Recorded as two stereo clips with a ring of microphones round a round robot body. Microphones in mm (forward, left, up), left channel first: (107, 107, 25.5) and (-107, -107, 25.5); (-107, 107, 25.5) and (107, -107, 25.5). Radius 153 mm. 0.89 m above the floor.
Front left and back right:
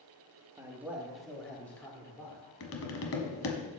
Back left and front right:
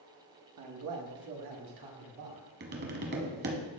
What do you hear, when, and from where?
0.6 s a man speaking: 60° right, 1.2 m; by 2.4 s 35° right, 3 m
2.6 s tapping: 10° left, 1.2 m